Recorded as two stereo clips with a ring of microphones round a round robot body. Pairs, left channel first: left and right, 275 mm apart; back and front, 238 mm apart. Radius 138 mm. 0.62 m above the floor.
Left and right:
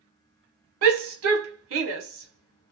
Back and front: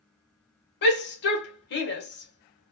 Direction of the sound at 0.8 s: 130° right.